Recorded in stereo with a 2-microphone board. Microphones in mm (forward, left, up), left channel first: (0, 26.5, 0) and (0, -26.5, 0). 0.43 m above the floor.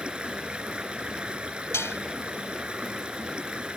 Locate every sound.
0.0 s running water: 20° right (ahead or behind)
1.7 s dishes clattering: 60° left (ahead or behind)